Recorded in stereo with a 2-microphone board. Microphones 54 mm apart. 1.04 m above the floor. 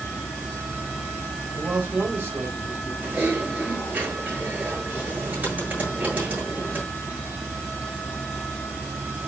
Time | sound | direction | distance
1.6 | a man speaking | 40° right (ahead or behind) | 4 m
3.0 | typing on a keyboard | 35° right (ahead or behind) | 8.5 m